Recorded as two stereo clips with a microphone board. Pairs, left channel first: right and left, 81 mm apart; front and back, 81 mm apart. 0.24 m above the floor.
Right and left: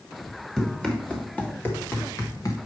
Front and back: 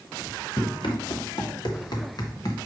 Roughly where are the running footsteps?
Ahead.